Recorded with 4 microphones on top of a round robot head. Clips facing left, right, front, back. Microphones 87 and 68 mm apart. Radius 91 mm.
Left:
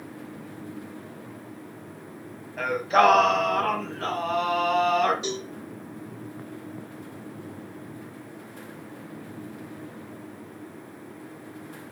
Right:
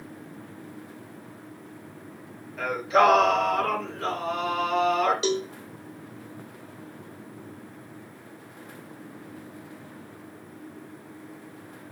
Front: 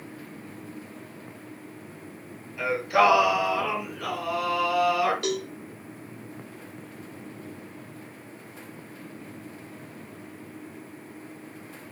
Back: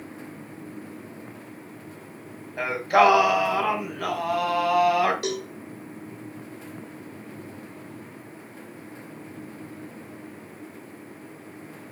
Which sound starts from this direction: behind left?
Singing, at 2.6 s.